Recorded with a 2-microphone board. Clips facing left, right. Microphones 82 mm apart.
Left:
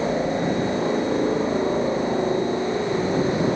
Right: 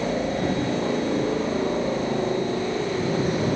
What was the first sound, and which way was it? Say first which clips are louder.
A helicopter: left 2 dB; 10° left (ahead or behind).